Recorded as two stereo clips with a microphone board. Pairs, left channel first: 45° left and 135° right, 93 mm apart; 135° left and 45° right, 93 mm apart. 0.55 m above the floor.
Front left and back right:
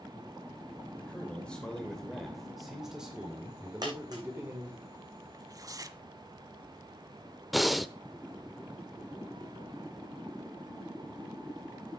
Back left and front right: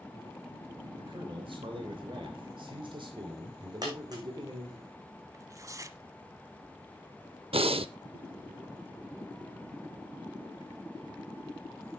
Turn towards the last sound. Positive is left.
turn(degrees=-45)